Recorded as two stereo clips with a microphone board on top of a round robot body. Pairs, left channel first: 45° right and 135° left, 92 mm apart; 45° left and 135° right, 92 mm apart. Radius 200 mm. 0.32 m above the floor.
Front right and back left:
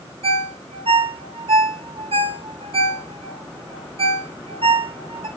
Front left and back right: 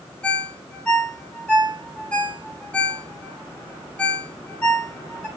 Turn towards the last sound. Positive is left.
turn(degrees=125)